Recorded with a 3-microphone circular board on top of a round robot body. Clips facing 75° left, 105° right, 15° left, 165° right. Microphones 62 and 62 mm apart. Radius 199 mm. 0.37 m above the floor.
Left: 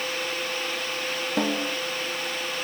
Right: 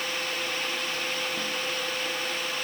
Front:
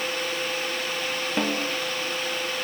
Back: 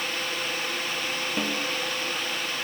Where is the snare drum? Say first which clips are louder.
Left 6 dB, front 4 dB; 80° left.